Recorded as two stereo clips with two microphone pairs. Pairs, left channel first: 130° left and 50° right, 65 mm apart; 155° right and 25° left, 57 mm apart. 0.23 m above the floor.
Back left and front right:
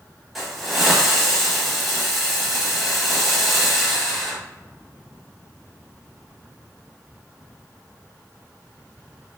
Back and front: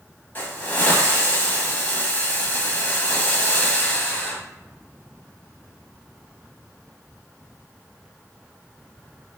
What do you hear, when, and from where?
0.3 s a hiss: 140° right, 0.7 m